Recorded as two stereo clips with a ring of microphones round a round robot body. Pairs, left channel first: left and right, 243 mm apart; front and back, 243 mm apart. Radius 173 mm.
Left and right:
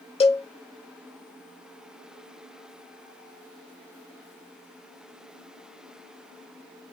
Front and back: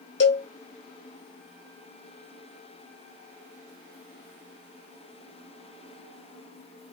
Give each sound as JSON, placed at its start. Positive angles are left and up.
{"t": 0.2, "sound": "a cowbell", "azimuth_deg": 30, "distance_m": 1.3}